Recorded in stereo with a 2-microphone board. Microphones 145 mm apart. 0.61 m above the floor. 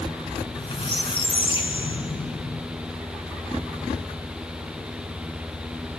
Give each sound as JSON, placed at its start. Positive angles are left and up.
{"t": 0.4, "sound": "a squeak", "side_deg": 40, "distance_m": 1.7}